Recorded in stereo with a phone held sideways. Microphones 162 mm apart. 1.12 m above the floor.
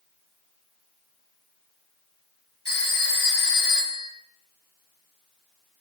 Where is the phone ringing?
75° left (ahead or behind), 1.9 m.